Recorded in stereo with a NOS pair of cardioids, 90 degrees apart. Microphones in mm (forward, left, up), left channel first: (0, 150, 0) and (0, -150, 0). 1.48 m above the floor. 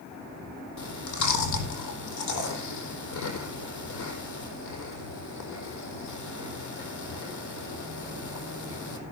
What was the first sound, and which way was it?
Chewing, 60° left.